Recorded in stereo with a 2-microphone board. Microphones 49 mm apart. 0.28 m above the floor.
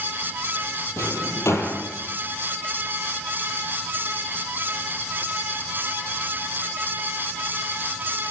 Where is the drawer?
75° left (ahead or behind), 5.5 m.